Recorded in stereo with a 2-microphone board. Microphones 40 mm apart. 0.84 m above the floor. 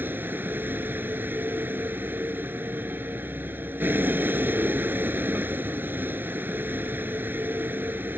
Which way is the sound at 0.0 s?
50° right (ahead or behind).